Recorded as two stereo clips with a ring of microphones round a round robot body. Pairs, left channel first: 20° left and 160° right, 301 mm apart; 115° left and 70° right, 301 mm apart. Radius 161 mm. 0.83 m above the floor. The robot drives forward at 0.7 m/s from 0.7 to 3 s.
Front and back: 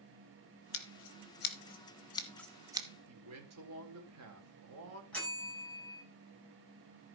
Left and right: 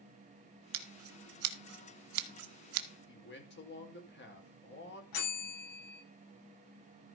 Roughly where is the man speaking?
Behind.